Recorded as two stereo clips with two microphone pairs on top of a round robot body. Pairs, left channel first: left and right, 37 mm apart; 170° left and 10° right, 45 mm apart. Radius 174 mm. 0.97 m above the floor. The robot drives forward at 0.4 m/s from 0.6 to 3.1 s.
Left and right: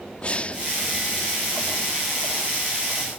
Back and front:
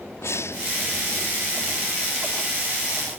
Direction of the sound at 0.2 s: 145° left.